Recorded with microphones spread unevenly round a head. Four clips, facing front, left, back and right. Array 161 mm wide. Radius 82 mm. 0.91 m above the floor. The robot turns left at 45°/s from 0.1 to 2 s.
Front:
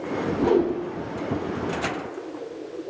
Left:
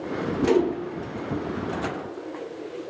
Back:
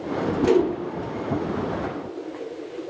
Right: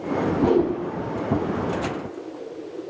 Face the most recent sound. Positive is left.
turn(degrees=-130)